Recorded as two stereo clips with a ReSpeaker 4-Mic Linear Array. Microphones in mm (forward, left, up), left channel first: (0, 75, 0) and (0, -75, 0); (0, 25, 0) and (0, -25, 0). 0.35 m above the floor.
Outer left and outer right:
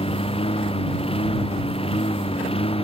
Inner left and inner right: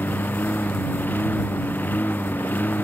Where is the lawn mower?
40° left (ahead or behind).